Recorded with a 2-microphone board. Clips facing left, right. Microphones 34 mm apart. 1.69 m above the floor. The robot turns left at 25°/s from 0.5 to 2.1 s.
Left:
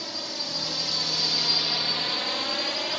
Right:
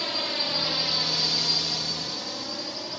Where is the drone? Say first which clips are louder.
Right 5 dB; 55° right (ahead or behind); by 3.0 s 75° left (ahead or behind).